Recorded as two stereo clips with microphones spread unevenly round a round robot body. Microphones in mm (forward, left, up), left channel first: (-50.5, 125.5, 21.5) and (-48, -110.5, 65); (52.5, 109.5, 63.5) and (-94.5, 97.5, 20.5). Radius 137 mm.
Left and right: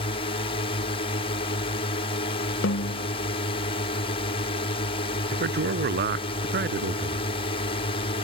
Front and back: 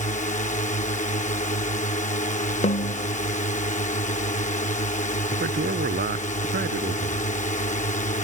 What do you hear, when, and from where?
0.0 s a drone: 40° left
2.6 s a snare drum: 40° left
5.3 s a man speaking: 135° right